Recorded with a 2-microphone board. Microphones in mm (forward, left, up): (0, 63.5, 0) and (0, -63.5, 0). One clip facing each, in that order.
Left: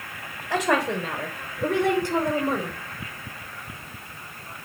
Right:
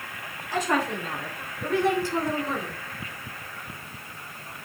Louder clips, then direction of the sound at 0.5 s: Left 3 dB; 75° left (ahead or behind).